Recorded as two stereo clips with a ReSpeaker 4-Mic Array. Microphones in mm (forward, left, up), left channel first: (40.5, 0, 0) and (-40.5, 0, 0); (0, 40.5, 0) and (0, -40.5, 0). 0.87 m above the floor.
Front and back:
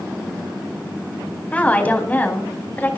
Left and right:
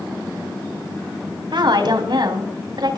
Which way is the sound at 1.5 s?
70° right.